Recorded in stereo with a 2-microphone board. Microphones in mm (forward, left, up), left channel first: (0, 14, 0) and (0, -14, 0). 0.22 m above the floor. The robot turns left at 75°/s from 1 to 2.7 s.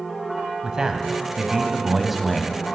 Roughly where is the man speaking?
Right.